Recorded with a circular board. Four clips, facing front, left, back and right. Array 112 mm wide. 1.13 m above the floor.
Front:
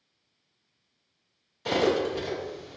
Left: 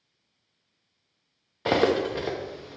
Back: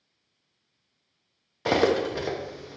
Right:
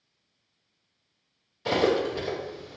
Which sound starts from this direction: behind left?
Cutlery clinking, at 1.6 s.